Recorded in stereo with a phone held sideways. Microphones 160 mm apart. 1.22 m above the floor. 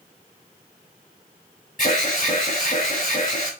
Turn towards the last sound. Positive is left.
turn(degrees=60)  # may be behind; listen again after turning